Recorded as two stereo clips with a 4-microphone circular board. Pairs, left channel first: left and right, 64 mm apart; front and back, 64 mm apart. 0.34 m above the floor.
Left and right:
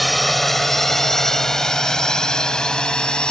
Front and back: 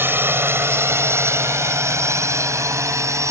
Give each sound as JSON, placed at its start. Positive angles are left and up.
{"t": 0.0, "sound": "a drone", "azimuth_deg": 180}